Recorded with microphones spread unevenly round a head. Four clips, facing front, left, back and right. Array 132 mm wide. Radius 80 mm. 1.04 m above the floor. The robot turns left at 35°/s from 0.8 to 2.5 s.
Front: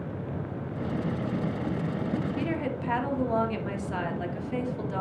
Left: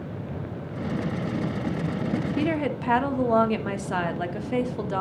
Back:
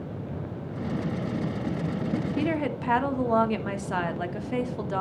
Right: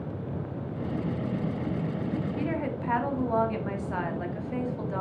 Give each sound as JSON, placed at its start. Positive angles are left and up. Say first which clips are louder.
{"t": 2.4, "sound": "a woman speaking", "louder": "left 5 dB, back 3 dB", "azimuth_deg": 120, "distance_m": 1.6}